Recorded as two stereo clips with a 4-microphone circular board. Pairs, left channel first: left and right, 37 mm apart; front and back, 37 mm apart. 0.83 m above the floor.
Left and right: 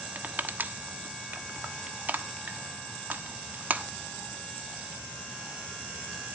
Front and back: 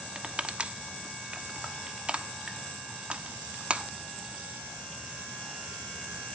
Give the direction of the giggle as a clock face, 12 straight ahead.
No giggle in this recording.